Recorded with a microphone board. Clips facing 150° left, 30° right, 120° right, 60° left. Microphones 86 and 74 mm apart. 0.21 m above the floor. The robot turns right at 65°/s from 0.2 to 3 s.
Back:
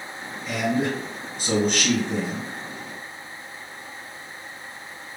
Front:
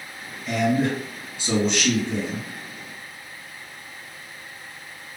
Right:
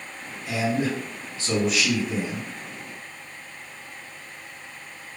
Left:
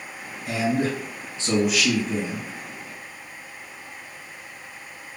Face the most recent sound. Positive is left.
turn(degrees=-135)